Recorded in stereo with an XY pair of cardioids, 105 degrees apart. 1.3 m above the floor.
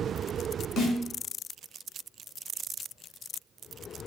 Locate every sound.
0.8 s a snare drum: 65° left, 4 m